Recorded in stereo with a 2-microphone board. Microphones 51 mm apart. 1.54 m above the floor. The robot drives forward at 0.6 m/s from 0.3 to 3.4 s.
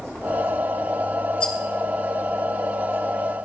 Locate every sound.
1.4 s a rattle: 20° left (ahead or behind), 1.5 m